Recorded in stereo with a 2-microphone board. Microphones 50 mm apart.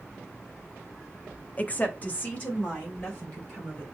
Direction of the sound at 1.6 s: 30° left (ahead or behind).